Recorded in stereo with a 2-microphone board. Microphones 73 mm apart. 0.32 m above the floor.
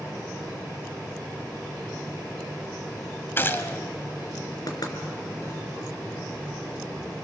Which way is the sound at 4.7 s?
60° left (ahead or behind).